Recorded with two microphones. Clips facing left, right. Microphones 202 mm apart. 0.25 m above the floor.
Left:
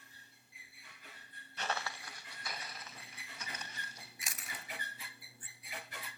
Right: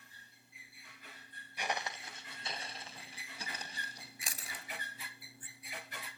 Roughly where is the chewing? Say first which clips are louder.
Even; right.